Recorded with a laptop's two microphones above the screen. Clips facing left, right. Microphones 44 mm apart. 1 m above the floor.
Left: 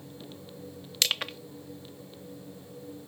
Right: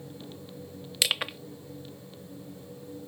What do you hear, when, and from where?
1.0 s crushing: 10° right (ahead or behind)